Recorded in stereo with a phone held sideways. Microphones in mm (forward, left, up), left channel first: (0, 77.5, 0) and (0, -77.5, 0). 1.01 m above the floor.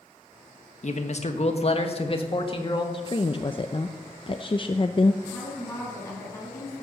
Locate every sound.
0.8 s a man speaking: 55° left (ahead or behind), 1.5 m; by 2.8 s 35° left (ahead or behind), 2 m
2.9 s a woman speaking: 35° left (ahead or behind), 0.6 m
5.2 s a woman speaking: 20° left (ahead or behind), 8 m